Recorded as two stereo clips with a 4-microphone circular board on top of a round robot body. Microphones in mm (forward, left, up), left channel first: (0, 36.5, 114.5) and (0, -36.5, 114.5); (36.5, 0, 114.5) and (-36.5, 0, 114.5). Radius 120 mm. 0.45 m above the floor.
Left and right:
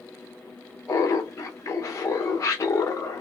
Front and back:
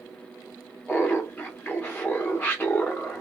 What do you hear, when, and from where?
0.9 s laughter: 65° left, 0.9 m